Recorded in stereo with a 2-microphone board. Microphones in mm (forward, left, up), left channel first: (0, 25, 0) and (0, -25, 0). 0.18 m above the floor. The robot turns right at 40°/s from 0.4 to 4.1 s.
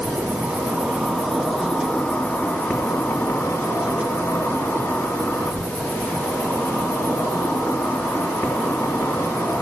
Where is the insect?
40° right, 2.5 m; by 9.6 s 110° left, 2.5 m.